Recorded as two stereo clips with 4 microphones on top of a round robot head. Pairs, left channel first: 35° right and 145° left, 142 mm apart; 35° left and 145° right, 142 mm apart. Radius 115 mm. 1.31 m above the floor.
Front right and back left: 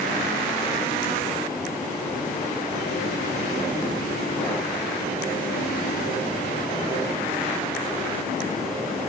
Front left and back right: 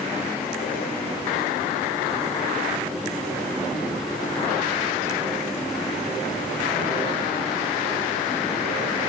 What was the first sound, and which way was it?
Only background noise.